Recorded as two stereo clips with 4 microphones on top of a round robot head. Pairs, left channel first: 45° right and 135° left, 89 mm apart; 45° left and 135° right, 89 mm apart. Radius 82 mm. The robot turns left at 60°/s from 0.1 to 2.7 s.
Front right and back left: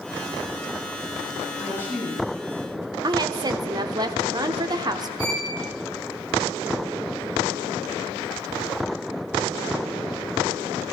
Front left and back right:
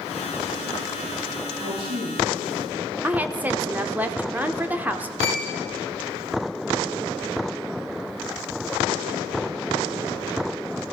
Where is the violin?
160° left, 5.5 m.